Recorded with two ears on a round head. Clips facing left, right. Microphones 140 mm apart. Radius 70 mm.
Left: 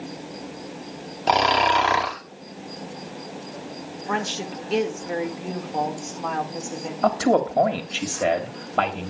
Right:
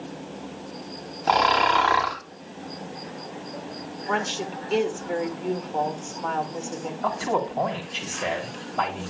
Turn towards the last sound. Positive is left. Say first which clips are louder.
# left 7 dB
turn(degrees=80)